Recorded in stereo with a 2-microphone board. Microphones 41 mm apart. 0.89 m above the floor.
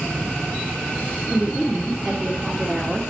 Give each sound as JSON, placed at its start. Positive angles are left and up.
{"t": 1.3, "sound": "a woman speaking", "side_deg": 15, "distance_m": 2.0}